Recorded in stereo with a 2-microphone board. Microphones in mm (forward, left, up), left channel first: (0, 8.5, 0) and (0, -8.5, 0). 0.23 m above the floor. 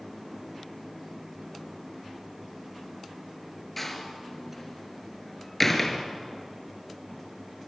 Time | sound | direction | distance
3.8 | a door slam | 15° left (ahead or behind) | 2 m